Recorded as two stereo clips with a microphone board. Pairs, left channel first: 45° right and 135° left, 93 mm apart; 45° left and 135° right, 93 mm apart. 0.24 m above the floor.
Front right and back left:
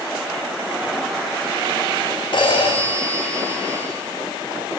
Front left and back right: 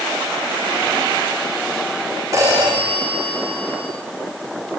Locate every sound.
2.3 s a phone ringing: 80° right, 9 m